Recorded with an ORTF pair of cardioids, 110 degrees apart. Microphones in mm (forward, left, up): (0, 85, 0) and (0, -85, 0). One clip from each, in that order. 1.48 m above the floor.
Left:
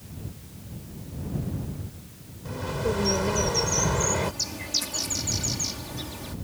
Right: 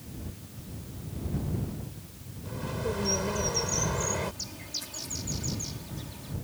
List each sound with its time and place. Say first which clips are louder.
2.5 s a bird: left 5 dB; 30° left
4.2 s a bird: left 7 dB; 50° left